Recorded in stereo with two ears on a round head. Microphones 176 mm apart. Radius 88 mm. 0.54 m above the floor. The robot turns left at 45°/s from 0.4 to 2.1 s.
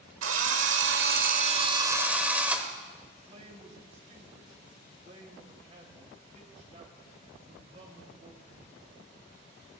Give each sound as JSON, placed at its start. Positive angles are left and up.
{"t": 0.2, "sound": "a drill", "azimuth_deg": -95, "distance_m": 1.2}
{"t": 3.1, "sound": "a man speaking", "side_deg": -35, "distance_m": 3.0}